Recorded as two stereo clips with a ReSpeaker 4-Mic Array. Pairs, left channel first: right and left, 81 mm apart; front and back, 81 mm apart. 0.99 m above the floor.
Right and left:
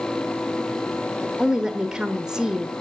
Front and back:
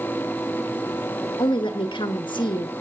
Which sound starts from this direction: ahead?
A woman speaking, at 1.4 s.